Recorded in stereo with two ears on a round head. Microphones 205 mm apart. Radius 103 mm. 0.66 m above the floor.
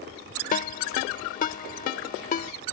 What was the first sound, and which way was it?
A ringtone, 35° left (ahead or behind).